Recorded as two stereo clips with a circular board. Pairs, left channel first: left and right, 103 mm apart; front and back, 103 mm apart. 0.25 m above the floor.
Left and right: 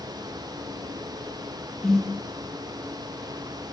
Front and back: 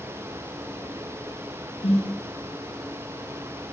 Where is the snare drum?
5° left, 9.5 m.